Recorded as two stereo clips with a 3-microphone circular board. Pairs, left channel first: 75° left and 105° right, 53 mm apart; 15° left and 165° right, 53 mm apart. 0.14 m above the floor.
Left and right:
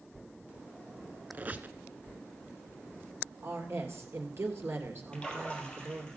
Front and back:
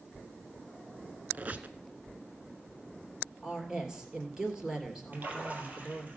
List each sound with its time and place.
1.3 s a squeak: 135° right, 0.8 m
3.4 s a woman speaking: 90° right, 2.5 m
5.1 s a splash: 145° left, 3 m